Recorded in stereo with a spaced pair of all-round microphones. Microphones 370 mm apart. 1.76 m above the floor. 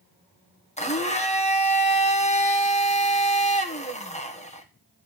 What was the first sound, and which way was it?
A blender, 15° left (ahead or behind).